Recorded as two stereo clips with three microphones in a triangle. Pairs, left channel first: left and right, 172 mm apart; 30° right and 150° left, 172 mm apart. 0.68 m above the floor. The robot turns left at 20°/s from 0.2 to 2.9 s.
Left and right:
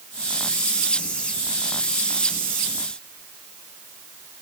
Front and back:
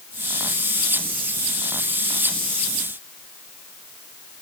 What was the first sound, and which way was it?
Only background noise.